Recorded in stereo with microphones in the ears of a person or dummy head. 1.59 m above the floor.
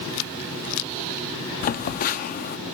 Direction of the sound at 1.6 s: 45° left (ahead or behind).